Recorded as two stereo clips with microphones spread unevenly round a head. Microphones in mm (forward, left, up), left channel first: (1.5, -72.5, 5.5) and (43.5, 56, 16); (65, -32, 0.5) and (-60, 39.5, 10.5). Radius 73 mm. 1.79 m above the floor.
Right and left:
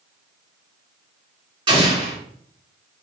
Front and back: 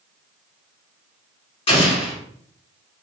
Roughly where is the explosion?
Ahead.